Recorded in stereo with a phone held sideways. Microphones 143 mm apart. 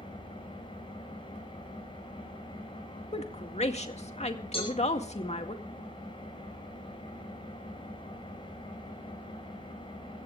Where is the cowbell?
45° left (ahead or behind), 7.5 m.